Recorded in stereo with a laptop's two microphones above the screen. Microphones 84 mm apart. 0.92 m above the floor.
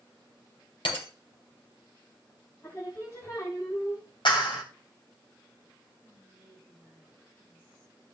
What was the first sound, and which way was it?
Breaking glass, 85° left.